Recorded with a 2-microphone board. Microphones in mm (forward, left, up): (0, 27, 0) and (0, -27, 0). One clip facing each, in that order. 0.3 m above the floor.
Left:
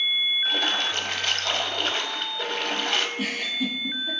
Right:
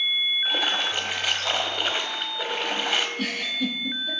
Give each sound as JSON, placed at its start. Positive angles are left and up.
{"t": 0.5, "sound": "a splash", "side_deg": -10, "distance_m": 0.5}
{"t": 3.2, "sound": "a giggle", "side_deg": 15, "distance_m": 1.8}